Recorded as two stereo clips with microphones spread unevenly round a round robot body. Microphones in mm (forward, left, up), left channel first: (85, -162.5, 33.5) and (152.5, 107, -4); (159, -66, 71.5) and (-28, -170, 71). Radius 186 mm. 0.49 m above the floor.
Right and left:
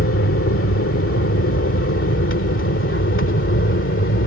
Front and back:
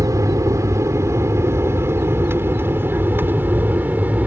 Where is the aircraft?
80° right; by 4.3 s 70° right.